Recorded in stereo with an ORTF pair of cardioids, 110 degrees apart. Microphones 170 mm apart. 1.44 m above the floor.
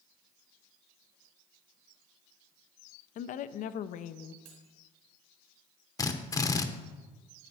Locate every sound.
3.1 s a woman speaking: 55° left, 0.6 m
4.5 s cutlery clinking: 65° right, 3.5 m
6.0 s a drill: 25° left, 0.9 m